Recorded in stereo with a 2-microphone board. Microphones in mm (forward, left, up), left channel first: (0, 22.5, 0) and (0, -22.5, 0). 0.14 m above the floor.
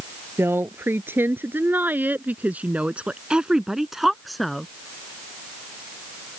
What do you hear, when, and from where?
0.4 s a woman speaking: 60° right (ahead or behind); by 4.7 s 5° left (ahead or behind)